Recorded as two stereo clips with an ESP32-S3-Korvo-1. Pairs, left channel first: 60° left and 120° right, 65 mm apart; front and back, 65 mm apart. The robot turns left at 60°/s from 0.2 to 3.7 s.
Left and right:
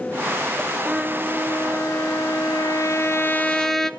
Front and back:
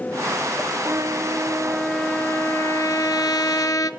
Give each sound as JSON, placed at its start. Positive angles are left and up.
{"t": 0.8, "sound": "a trumpet", "azimuth_deg": 145, "distance_m": 1.0}